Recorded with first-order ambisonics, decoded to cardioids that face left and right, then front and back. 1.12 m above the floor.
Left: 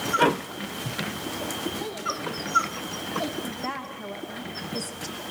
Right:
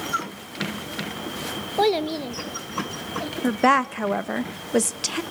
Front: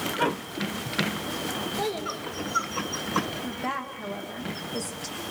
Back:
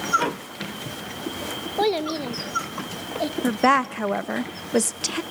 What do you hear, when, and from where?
1.8 s a child speaking: 120° right, 0.9 m; by 3.3 s 165° left, 1.3 m
3.4 s a woman speaking: 135° right, 0.7 m